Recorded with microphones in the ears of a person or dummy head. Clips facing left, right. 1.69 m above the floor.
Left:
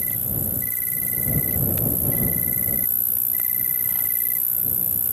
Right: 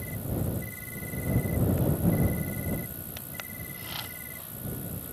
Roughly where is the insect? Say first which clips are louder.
Even; left.